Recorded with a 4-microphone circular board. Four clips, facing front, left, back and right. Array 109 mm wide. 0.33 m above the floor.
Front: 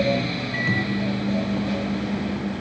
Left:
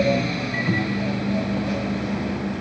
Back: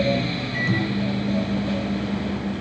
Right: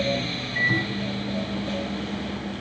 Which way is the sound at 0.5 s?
70° left.